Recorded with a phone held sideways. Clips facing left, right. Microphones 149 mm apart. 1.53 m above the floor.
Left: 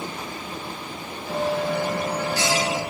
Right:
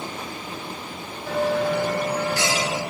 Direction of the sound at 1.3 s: 75° right (ahead or behind).